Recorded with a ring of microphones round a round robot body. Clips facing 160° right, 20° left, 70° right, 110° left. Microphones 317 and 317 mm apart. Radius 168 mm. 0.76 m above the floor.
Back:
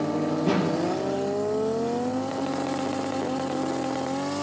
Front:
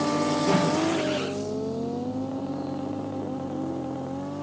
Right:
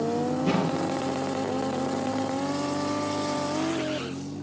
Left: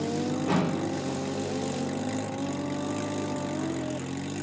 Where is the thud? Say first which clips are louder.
Even, right 1 dB; 105° right, 6.5 m.